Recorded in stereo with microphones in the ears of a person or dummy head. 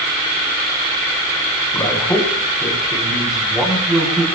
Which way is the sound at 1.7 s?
10° left (ahead or behind).